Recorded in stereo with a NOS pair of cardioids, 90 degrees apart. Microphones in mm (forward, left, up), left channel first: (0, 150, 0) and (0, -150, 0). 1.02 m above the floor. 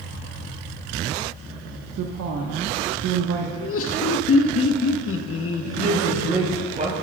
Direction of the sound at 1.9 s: 65° right.